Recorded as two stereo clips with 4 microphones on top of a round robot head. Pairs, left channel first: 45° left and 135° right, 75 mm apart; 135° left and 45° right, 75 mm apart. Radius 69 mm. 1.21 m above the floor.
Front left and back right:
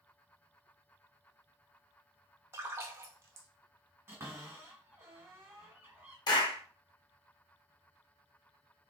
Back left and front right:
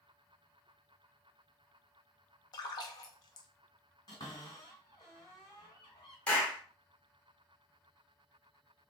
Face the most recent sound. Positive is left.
turn(degrees=65)